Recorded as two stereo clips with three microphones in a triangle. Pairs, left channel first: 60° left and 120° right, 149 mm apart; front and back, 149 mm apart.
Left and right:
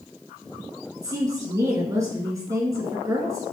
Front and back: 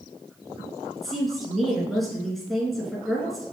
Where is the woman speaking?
90° right, 1.6 m.